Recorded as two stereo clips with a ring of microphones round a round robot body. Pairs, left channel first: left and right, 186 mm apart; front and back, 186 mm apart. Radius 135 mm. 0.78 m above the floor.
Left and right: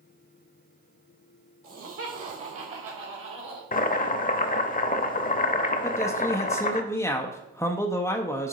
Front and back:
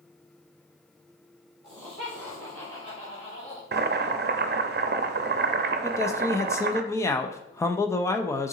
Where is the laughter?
90° right, 3 m; by 3.6 s 65° right, 3 m.